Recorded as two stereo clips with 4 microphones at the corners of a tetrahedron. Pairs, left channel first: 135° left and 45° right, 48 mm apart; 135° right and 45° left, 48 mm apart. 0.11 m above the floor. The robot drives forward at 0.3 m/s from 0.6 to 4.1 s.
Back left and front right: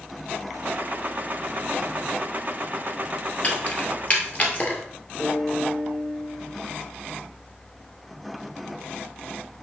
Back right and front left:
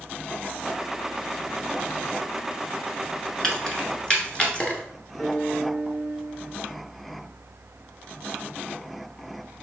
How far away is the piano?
About 1.1 m.